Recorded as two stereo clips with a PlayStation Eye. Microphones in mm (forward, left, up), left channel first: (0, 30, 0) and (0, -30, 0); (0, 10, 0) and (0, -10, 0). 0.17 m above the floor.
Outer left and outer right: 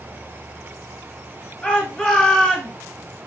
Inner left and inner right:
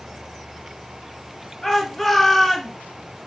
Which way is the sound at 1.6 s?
20° left (ahead or behind).